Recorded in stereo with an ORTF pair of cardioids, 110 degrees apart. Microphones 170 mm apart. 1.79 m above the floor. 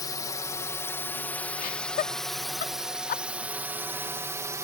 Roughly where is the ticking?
No ticking in this recording.